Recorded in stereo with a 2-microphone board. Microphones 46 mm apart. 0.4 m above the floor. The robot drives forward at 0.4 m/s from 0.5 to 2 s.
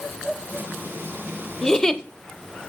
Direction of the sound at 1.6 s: 15° left (ahead or behind).